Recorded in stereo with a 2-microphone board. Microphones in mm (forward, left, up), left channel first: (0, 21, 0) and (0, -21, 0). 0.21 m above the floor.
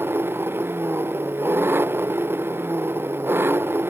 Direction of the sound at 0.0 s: 55° right (ahead or behind).